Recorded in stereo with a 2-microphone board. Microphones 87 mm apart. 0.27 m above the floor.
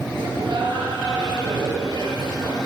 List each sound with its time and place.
0.2 s laughter: 60° right (ahead or behind), 4.5 m